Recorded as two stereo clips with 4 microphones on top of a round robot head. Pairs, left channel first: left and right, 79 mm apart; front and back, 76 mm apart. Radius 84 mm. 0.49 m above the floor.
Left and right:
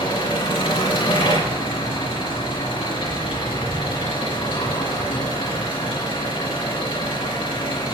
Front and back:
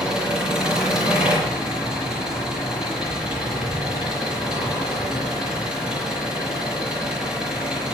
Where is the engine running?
100° left, 9 m.